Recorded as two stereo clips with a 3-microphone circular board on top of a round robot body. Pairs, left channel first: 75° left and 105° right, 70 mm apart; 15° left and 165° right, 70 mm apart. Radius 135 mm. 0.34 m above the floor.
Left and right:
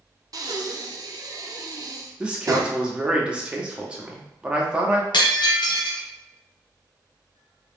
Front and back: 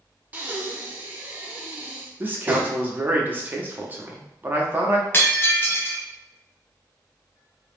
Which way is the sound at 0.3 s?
100° right.